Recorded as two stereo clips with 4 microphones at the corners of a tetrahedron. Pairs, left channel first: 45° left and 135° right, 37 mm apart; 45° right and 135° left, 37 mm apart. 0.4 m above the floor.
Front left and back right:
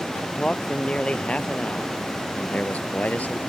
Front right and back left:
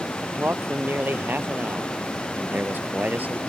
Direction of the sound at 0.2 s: 110° left.